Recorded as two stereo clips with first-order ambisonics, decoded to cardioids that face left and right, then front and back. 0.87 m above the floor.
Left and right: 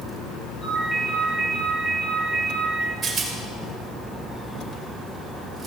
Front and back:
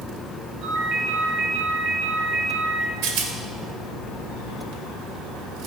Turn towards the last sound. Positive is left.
turn(degrees=-160)